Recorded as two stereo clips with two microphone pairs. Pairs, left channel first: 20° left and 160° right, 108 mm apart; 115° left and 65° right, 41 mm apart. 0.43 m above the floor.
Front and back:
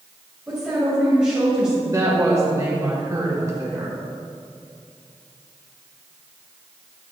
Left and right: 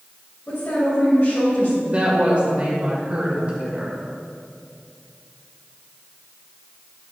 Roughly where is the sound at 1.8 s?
Right.